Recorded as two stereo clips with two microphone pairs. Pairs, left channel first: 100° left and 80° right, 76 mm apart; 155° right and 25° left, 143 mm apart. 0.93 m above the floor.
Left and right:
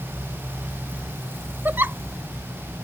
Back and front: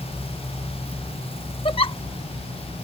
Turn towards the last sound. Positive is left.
turn(degrees=-130)